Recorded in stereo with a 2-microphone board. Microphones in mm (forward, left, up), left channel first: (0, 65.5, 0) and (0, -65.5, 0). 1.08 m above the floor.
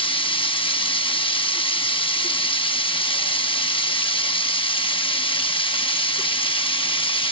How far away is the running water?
About 0.9 m.